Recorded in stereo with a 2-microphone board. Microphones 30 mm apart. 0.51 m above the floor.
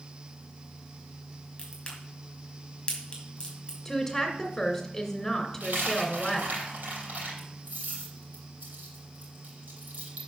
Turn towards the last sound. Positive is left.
turn(degrees=-65)  # may be behind; listen again after turning